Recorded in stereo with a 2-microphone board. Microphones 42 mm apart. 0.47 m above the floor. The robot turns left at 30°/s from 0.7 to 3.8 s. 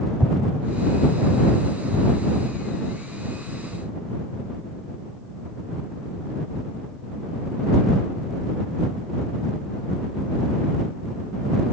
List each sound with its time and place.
0.2 s an explosion: 50° right (ahead or behind)